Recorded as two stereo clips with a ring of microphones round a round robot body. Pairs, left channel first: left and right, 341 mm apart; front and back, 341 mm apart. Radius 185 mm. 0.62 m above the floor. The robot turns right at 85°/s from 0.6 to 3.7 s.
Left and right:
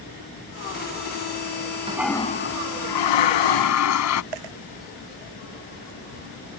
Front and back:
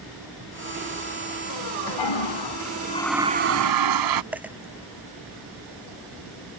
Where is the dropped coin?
95° right.